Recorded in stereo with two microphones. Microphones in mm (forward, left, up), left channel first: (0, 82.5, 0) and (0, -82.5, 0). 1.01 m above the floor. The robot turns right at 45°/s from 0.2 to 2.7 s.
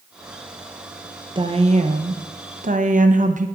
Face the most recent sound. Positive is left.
turn(degrees=-80)